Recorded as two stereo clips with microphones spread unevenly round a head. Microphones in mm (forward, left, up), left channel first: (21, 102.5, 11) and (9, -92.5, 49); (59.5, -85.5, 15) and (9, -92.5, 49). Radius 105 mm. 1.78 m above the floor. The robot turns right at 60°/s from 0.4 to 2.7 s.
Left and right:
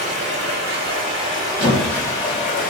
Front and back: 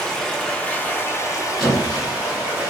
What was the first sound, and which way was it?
Running water, 95° right.